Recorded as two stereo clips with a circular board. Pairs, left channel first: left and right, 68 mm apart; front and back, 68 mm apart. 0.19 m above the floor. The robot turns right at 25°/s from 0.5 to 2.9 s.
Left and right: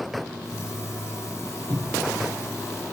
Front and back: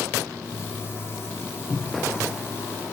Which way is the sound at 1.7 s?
75° right.